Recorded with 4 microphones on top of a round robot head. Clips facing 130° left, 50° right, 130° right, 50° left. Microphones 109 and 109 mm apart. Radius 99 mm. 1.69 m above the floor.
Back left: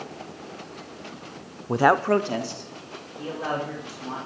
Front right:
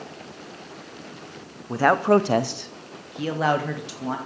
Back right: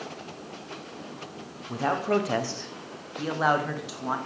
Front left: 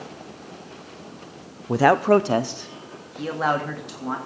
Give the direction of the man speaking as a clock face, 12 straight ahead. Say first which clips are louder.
Front right 1 dB, front left 9 dB; 10 o'clock.